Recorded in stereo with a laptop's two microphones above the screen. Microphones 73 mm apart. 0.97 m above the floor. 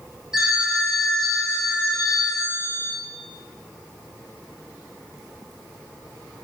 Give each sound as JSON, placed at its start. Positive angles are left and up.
{"t": 0.3, "sound": "a phone ringing", "side_deg": -10, "distance_m": 1.2}